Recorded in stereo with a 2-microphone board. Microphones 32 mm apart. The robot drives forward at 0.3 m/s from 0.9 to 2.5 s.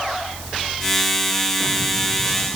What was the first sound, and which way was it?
Only background noise.